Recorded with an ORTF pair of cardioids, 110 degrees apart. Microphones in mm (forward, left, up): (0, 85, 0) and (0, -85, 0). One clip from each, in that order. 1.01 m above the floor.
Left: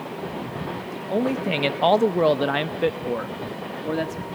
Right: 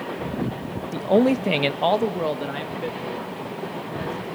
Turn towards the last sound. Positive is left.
turn(degrees=70)